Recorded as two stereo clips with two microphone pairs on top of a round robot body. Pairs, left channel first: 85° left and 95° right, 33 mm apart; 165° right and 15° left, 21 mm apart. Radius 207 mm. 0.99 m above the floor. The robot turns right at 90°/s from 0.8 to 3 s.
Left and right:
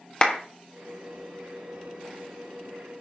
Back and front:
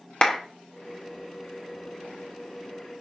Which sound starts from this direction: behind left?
A clap, at 0.2 s.